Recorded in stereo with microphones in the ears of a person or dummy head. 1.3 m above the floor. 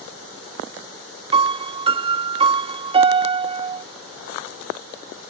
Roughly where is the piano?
Right.